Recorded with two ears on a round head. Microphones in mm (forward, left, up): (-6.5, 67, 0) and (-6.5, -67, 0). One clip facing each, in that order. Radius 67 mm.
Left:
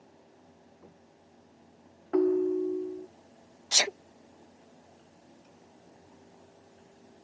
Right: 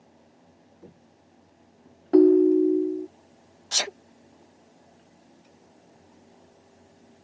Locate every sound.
0.8 s footsteps: 35° right (ahead or behind); by 2.0 s 30° right (ahead or behind)
2.1 s a ringtone: 40° right (ahead or behind)
3.7 s a sneeze: 10° left (ahead or behind)